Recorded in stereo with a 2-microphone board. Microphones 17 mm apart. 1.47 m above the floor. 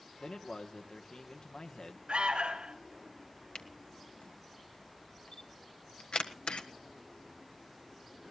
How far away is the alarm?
About 2.5 m.